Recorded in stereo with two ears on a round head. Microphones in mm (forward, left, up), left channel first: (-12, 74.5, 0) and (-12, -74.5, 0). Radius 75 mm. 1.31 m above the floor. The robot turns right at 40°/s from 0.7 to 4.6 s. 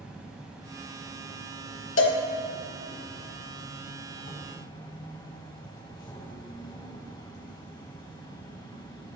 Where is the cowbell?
80° left, 1.4 m; by 2.2 s 90° left, 1.4 m.